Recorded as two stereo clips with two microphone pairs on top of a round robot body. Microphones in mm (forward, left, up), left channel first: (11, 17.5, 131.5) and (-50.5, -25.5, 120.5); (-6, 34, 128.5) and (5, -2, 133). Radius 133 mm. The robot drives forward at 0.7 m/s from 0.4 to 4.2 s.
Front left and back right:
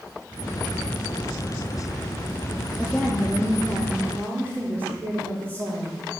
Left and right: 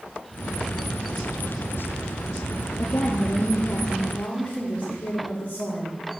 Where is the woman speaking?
125° left, 1.0 m; by 6.2 s 155° left, 1.7 m.